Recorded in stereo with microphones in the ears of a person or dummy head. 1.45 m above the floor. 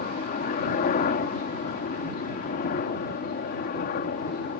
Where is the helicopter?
50° left (ahead or behind); by 4.6 s 55° left (ahead or behind).